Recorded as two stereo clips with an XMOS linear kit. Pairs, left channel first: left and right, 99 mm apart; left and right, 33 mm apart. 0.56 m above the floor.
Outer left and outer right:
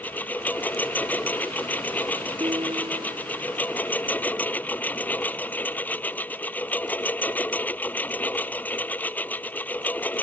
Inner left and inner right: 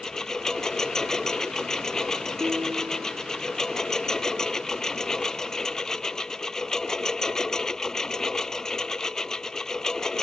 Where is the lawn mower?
15° left (ahead or behind).